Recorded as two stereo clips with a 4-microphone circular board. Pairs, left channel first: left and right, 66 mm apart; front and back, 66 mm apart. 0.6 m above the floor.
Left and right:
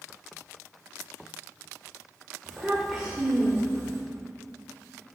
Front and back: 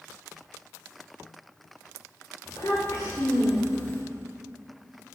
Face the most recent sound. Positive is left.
turn(degrees=-60)